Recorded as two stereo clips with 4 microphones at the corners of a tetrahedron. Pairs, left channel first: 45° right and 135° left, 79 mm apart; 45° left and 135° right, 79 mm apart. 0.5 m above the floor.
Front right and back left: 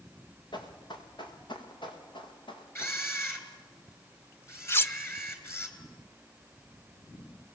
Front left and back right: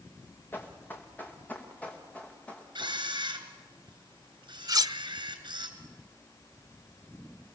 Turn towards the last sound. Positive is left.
turn(degrees=-105)